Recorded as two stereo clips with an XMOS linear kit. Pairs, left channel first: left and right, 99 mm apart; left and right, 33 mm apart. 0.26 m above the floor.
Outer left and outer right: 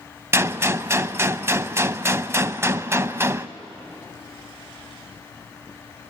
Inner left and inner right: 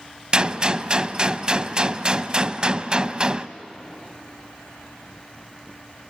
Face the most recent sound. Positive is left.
turn(degrees=-25)  # may be behind; listen again after turning